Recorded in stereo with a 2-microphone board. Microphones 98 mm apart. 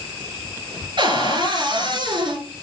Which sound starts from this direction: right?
A cupboard door, at 1.0 s.